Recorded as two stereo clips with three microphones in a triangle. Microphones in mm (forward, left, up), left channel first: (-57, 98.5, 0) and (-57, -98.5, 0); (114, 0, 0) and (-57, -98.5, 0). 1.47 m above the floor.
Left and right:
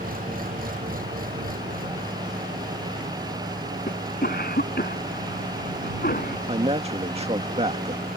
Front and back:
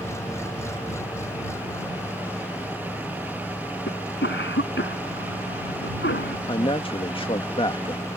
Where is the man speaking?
35° right.